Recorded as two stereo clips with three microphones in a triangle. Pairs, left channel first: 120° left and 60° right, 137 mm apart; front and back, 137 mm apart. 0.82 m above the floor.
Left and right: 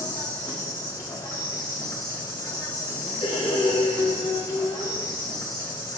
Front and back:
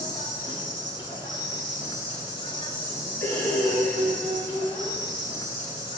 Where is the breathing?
75° left, 2 m.